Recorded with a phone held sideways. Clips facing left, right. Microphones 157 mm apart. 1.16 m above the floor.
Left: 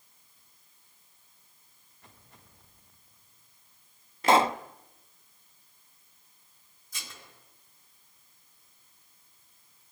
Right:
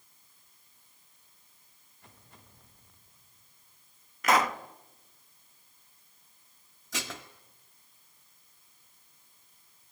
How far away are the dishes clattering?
About 1.8 m.